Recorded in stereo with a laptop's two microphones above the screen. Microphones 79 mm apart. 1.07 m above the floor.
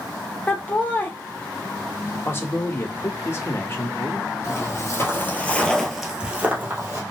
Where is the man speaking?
30° left (ahead or behind), 1.4 m.